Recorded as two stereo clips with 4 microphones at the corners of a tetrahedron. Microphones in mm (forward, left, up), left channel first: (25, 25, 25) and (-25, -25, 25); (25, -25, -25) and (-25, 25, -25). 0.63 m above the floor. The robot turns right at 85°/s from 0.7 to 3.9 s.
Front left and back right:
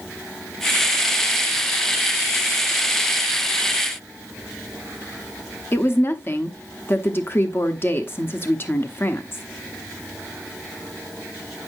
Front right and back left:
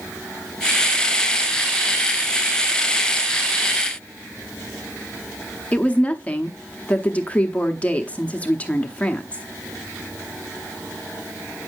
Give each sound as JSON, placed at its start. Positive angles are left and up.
{"t": 5.7, "sound": "a woman speaking", "azimuth_deg": 15, "distance_m": 0.8}